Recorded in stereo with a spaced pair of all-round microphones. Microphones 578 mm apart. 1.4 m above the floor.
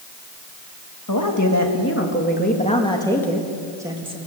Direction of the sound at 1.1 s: 35° left (ahead or behind).